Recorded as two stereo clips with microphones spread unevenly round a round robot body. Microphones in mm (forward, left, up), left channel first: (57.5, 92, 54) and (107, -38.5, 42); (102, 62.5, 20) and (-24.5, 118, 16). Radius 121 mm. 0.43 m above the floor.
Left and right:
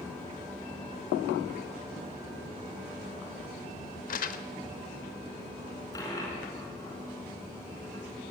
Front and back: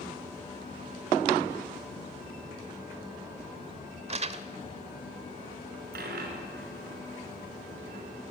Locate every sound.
4.1 s crumpling: 125° left, 1.0 m
5.9 s a dropped coin: 175° right, 1.9 m